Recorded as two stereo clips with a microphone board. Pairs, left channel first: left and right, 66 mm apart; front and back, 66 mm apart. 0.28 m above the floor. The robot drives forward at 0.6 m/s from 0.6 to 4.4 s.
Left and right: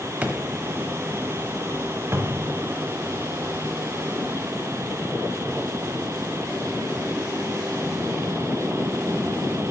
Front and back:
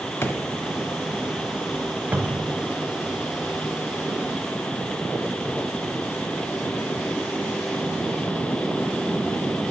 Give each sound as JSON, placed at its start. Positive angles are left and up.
{"t": 0.2, "sound": "a drawer", "azimuth_deg": -30, "distance_m": 0.9}
{"t": 2.1, "sound": "a cupboard door", "azimuth_deg": -125, "distance_m": 0.7}